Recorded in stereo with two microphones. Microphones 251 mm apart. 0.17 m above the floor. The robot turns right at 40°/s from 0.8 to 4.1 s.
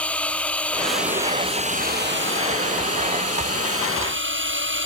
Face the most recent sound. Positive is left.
turn(degrees=-55)